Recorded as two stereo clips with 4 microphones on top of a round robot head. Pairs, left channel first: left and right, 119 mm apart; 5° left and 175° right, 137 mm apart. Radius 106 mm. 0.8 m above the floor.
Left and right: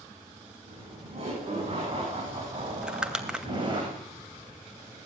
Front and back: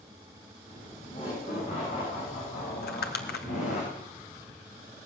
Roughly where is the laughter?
Ahead right.